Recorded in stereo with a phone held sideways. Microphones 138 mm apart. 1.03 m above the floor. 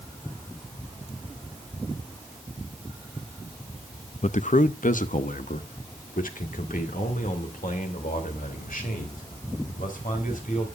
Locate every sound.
4.2 s a man speaking: 60° left (ahead or behind), 0.6 m; by 10.7 s 90° left, 4.5 m